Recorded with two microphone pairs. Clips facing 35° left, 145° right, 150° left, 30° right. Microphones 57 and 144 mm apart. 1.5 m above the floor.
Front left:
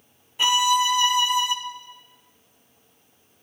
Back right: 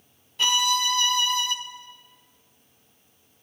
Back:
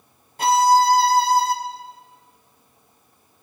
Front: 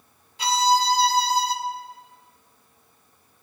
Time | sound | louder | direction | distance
0.4 | a violin | front left 4 dB, back 5 dB | 110° left | 0.6 m